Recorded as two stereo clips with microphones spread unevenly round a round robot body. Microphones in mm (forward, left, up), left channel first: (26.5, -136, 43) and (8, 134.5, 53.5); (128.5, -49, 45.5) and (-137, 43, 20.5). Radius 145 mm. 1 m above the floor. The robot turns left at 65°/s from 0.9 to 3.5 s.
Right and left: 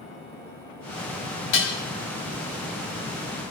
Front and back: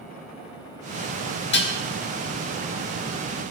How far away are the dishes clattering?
About 1.8 m.